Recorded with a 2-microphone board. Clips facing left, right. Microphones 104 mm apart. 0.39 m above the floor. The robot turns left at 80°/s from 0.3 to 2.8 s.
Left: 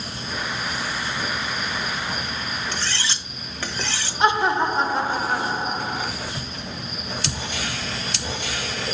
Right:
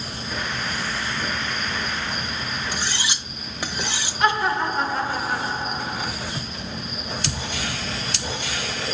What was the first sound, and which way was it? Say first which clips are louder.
Cutlery clinking: even; 10° right (ahead or behind).